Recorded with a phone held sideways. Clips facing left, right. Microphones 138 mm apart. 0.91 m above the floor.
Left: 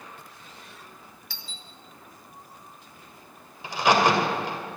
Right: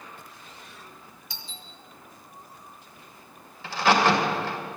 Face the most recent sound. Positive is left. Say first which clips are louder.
# even
turn(degrees=15)  # may be behind; listen again after turning